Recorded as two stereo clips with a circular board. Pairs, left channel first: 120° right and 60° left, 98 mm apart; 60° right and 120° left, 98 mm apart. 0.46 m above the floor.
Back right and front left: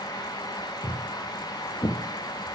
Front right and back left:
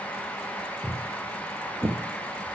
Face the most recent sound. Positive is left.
turn(degrees=-175)